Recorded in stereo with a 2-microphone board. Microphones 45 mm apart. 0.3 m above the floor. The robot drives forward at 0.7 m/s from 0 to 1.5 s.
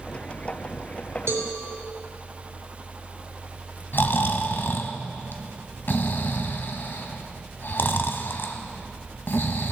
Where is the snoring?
50° left (ahead or behind), 1.0 m.